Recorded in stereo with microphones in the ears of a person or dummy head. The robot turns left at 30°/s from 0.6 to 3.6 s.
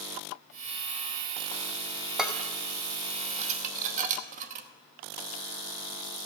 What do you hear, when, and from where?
2.2 s dishes clattering: centre (ahead or behind), 0.8 m; by 4.7 s 40° right (ahead or behind), 0.8 m